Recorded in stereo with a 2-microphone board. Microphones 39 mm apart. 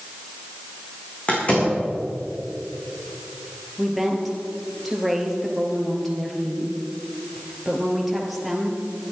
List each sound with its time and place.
1.3 s a door slam: 35° left (ahead or behind), 7 m
3.8 s a woman speaking: centre (ahead or behind), 3 m